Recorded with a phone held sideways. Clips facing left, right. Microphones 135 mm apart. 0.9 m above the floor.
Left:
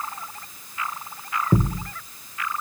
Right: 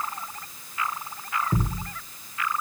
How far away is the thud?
About 1.0 m.